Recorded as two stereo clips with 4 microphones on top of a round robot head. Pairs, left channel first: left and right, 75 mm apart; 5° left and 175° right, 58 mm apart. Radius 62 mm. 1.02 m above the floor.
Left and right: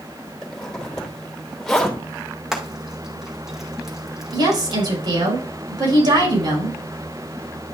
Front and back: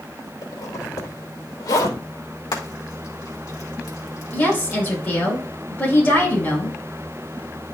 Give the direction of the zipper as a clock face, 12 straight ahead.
12 o'clock.